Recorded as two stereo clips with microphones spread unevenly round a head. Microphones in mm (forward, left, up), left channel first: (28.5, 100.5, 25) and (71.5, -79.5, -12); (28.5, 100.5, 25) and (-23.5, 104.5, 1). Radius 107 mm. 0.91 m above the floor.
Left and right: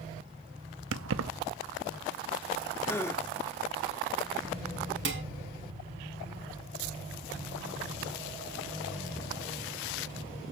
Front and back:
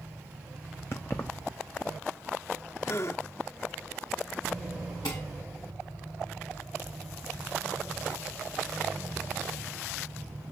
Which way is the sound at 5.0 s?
55° right.